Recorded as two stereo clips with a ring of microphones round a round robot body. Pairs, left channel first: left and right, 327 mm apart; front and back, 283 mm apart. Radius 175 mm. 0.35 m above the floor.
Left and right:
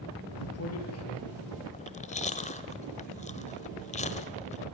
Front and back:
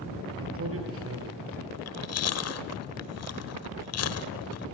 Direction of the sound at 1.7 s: 25° left.